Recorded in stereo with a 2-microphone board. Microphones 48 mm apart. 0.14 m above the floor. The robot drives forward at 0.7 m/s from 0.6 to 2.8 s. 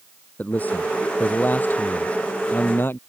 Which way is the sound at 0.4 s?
35° left (ahead or behind).